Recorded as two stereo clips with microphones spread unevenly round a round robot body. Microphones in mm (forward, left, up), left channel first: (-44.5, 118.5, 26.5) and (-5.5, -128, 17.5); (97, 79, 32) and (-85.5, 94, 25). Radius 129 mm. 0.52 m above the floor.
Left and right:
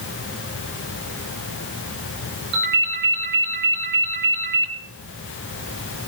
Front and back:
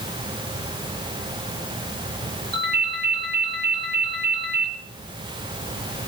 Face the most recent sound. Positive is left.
turn(degrees=-130)